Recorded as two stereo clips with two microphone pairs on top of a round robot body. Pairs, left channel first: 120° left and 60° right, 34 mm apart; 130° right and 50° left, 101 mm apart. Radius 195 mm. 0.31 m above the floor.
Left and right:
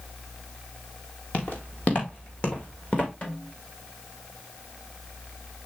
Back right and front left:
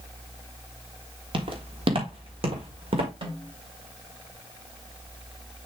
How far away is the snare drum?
About 3.5 m.